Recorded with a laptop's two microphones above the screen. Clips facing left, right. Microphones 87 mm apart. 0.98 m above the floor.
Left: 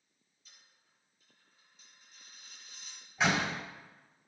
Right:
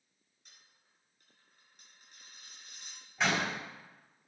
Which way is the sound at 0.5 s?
65° right (ahead or behind).